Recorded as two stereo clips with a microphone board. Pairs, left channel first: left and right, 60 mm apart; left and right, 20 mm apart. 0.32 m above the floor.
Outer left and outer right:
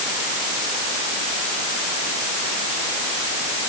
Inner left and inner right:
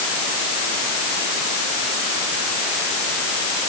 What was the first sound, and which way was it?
Only background noise.